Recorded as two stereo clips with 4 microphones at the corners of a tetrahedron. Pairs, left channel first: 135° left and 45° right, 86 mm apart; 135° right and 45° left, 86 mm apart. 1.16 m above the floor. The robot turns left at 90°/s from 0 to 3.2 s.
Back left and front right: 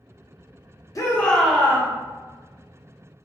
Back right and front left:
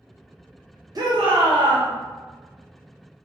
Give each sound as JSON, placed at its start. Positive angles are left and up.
{"t": 0.9, "sound": "a shout", "azimuth_deg": 85, "distance_m": 0.9}